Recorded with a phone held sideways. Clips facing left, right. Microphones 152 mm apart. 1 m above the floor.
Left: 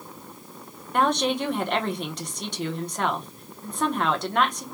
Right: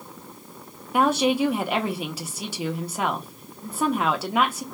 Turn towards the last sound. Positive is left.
turn(degrees=-5)  # may be behind; listen again after turning